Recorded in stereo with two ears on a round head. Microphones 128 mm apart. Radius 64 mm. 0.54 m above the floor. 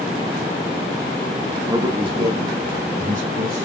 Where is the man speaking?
25° right (ahead or behind), 0.9 m; by 3.6 s 60° right (ahead or behind), 1.8 m.